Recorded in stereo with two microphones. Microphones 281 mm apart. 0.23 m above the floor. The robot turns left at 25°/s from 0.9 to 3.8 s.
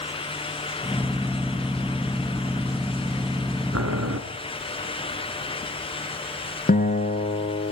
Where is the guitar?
30° left (ahead or behind), 2.5 m.